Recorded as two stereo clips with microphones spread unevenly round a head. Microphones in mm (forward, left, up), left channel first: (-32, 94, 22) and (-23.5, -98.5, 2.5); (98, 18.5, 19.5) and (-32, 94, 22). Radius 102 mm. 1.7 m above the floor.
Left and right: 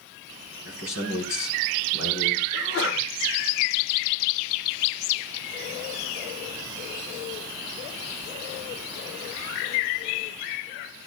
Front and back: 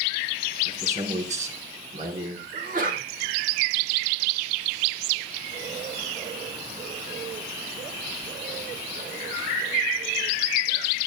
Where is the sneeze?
120° left, 9 m.